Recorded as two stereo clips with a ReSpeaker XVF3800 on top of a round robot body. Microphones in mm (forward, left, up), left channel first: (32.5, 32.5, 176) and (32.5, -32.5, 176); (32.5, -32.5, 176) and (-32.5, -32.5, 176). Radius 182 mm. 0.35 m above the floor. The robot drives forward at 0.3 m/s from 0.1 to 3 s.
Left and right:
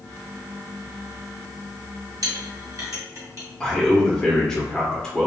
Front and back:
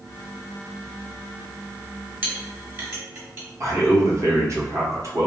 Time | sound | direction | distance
2.2 | a clink | 120° right | 1.7 m
3.6 | a man speaking | 170° left | 1.2 m